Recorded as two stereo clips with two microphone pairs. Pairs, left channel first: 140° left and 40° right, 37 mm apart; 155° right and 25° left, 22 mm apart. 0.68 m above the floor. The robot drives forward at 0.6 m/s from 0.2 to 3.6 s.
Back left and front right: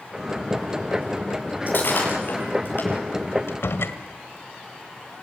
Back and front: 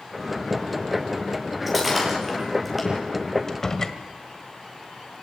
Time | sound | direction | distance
1.7 | breaking glass | 110° left | 8.5 m
3.5 | a door slam | 130° left | 1.9 m